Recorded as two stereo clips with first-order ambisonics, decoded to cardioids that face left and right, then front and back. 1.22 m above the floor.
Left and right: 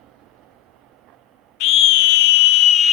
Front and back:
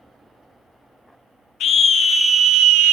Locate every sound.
1.6 s a scream: 55° left, 0.9 m; by 2.9 s 155° left, 0.7 m